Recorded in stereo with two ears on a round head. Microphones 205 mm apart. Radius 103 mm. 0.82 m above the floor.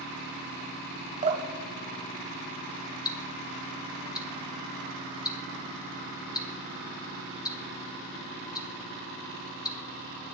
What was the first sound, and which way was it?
Dripping, 35° right (ahead or behind).